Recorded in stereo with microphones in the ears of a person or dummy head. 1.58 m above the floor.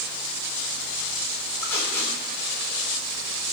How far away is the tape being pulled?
About 4 m.